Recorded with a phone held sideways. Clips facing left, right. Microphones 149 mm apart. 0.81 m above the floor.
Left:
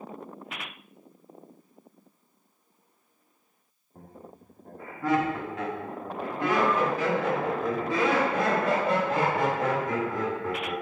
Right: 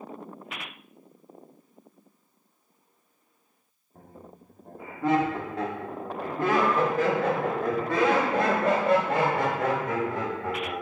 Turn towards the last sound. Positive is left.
turn(degrees=-75)  # may be behind; listen again after turning